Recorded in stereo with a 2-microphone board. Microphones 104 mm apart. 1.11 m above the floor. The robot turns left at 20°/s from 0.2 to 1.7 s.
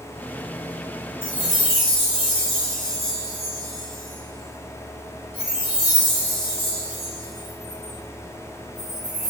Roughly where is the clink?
No clink in this recording.